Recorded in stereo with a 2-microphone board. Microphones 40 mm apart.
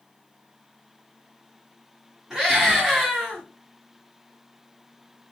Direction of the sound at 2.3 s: 10° right (ahead or behind).